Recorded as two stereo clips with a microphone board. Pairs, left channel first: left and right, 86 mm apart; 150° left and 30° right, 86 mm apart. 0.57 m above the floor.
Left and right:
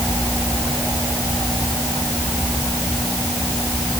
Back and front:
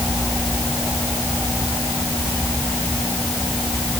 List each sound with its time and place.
Only background noise.